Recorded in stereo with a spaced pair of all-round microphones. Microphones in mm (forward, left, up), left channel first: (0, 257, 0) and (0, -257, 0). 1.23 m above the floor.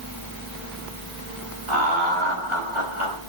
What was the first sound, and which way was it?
Laughter, 70° right (ahead or behind).